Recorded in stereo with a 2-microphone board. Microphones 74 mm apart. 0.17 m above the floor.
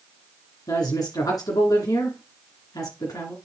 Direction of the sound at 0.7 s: 55° left (ahead or behind).